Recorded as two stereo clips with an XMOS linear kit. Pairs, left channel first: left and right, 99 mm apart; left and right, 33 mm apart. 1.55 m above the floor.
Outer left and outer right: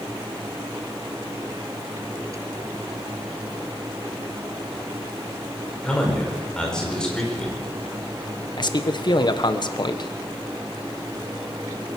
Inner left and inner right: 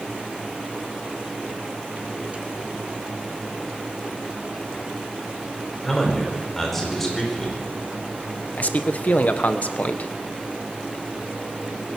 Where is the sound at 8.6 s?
45° left (ahead or behind), 1.2 m.